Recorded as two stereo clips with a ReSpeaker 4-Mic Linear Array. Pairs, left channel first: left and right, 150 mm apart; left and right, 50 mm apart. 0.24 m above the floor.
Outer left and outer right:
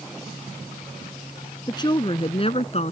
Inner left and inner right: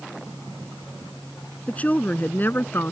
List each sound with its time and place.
1.7 s a woman speaking: 30° left (ahead or behind); by 2.9 s 50° left (ahead or behind)